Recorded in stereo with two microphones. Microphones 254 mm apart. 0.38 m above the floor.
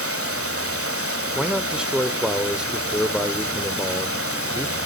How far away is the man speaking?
About 0.8 m.